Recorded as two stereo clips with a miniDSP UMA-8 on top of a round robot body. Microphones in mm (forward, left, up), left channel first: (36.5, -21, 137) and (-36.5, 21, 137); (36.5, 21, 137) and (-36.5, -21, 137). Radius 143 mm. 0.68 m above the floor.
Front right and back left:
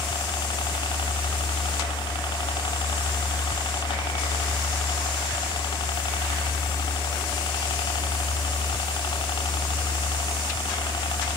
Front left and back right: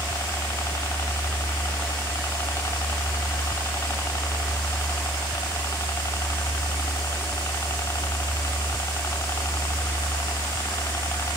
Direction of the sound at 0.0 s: 25° right.